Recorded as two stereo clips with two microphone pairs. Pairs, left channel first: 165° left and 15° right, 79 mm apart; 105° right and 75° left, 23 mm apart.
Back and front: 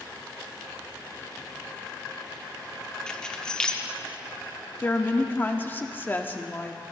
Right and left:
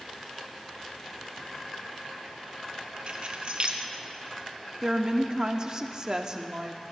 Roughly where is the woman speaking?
Behind left.